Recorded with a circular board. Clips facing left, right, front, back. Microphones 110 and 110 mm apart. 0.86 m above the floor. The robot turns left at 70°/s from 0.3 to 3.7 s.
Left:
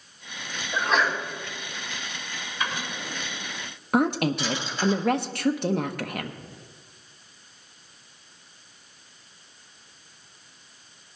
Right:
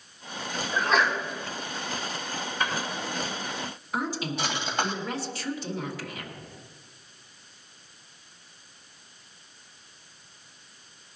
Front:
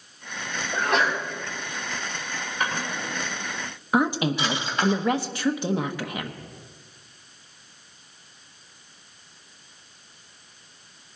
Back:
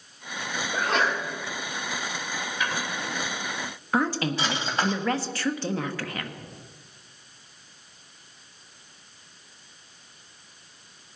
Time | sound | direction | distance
0.7 | a sneeze | 10° left | 5.5 m
2.6 | a drawer | 45° right | 3 m
3.9 | a woman speaking | 70° left | 0.9 m